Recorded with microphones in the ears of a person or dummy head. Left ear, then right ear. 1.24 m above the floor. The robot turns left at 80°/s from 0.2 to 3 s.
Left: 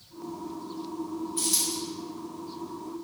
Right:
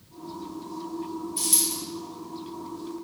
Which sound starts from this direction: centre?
A dropped coin, at 1.4 s.